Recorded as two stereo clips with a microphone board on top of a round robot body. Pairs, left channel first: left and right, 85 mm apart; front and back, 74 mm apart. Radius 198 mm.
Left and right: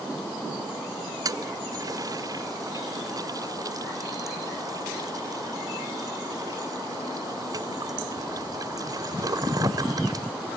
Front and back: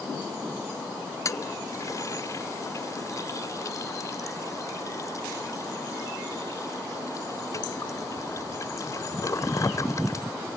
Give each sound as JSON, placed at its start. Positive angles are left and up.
{"t": 1.2, "sound": "a toilet flushing", "azimuth_deg": -45}